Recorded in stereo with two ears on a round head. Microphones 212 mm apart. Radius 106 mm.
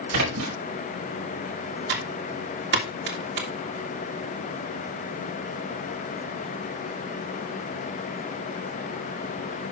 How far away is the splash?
About 5.5 m.